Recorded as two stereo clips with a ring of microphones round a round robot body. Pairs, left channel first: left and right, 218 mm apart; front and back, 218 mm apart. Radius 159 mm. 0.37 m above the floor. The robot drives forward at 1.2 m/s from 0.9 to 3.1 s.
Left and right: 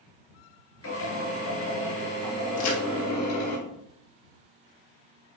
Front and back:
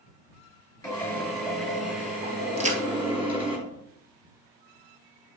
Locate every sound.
0.8 s a drill: 75° left, 4.5 m; by 3.6 s 110° left, 4.5 m
2.6 s a crack: 120° left, 1.7 m; by 2.8 s 125° left, 1.8 m